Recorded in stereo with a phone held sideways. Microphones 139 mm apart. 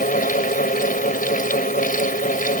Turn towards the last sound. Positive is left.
turn(degrees=80)